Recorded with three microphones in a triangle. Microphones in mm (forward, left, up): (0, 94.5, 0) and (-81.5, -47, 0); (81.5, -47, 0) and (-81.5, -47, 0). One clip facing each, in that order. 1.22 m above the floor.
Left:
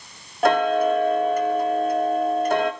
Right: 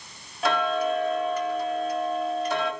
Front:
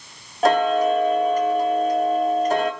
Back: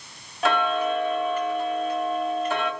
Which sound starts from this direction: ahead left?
Ticking, at 0.4 s.